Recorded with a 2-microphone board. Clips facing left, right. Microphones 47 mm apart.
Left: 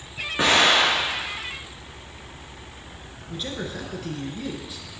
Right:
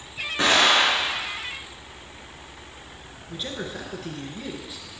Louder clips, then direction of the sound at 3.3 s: Left 1 dB; 5° right (ahead or behind).